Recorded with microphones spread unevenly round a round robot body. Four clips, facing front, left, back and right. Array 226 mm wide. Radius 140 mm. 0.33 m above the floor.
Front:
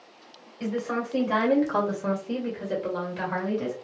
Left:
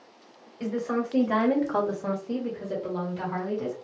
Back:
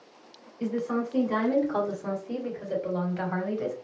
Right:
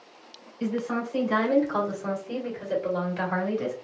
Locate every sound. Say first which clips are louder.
0.6 s a woman speaking: even, even; 50° left, 1.9 m; by 3.7 s 85° right, 1.7 m